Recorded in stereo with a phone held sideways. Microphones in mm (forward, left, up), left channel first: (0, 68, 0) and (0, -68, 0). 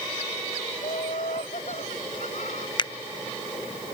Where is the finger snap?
35° left (ahead or behind).